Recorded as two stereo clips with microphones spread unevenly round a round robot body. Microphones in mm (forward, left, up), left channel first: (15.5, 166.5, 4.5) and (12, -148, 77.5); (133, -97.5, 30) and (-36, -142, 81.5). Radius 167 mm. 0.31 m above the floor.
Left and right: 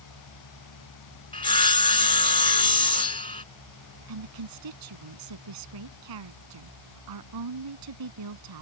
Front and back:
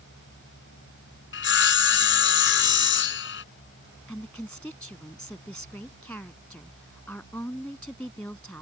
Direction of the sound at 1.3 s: 15° left.